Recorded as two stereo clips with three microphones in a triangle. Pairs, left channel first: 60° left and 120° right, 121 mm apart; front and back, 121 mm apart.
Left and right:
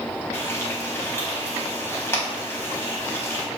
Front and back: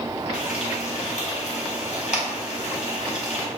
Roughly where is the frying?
Ahead.